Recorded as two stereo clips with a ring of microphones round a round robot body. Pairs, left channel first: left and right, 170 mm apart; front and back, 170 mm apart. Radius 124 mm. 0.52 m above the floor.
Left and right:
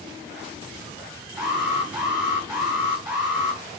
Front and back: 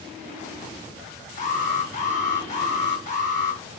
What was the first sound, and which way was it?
An alarm, 10° right.